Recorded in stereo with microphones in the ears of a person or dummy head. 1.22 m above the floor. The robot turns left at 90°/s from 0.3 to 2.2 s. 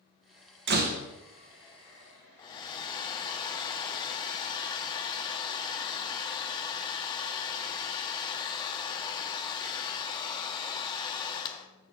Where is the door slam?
120° right, 0.9 m; by 1.0 s 150° right, 0.9 m.